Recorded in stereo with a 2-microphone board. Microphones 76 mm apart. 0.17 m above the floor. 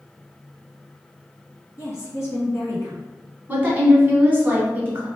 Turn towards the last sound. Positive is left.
turn(degrees=-25)  # may be behind; listen again after turning